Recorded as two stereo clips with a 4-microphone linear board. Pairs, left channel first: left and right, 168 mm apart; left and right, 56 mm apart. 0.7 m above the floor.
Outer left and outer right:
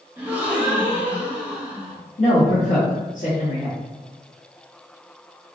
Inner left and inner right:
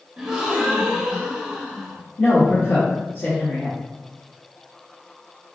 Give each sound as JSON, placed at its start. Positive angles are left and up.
{"t": 0.2, "sound": "a gasp", "side_deg": -10, "distance_m": 0.6}
{"t": 2.2, "sound": "a woman speaking", "side_deg": 45, "distance_m": 1.1}